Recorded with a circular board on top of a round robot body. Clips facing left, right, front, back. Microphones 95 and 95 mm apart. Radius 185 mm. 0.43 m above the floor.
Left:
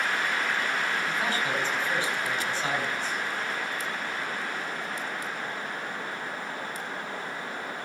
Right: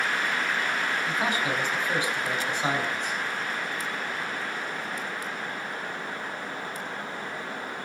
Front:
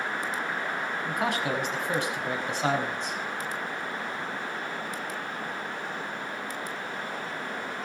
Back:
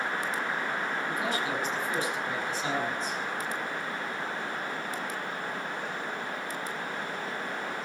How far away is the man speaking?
About 6 m.